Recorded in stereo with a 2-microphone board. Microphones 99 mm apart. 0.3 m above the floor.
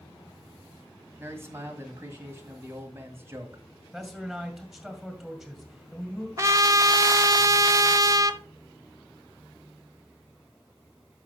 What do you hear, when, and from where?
1.2 s a man speaking: 25° right (ahead or behind), 1.7 m
3.9 s a man speaking: centre (ahead or behind), 2 m
6.4 s a trumpet: 30° right (ahead or behind), 0.6 m